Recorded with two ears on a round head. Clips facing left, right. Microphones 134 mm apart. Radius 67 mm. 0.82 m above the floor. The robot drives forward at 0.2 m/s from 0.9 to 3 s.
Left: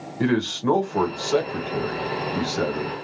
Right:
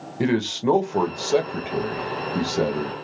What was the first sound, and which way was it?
A man speaking, 20° right (ahead or behind).